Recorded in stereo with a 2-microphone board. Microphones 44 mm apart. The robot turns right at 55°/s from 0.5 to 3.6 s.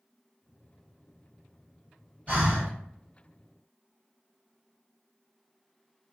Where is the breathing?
40° right (ahead or behind), 1.9 m; by 2.7 s 50° right (ahead or behind), 1.9 m.